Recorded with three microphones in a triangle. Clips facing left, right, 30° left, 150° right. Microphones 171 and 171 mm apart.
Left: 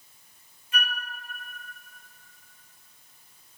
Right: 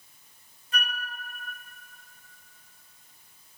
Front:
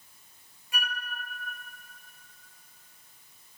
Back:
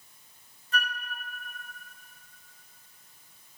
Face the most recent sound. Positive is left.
turn(degrees=-45)